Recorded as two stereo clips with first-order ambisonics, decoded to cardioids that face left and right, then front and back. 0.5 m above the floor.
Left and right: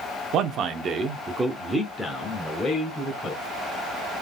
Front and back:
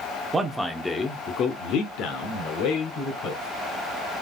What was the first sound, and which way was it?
A man speaking, 105° right.